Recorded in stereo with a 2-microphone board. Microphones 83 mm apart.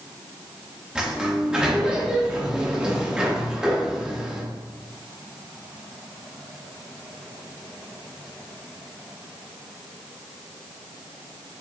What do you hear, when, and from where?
0.9 s a sliding door: 10° right (ahead or behind), 0.6 m